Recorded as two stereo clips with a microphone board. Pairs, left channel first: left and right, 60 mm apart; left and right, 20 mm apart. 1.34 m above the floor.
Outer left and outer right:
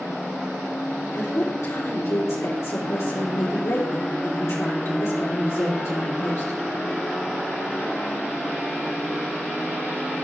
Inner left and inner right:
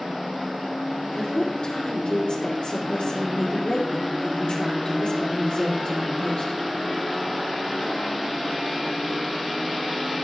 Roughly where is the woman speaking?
Left.